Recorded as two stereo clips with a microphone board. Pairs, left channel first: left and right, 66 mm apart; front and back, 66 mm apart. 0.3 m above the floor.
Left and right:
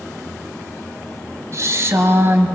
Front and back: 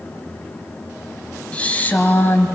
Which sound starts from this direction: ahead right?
A woman speaking, at 1.5 s.